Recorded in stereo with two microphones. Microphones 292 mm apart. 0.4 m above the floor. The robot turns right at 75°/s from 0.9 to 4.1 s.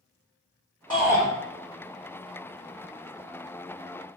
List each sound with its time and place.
0.9 s a shout: 15° left (ahead or behind), 1.3 m; by 1.3 s 5° left (ahead or behind), 1.3 m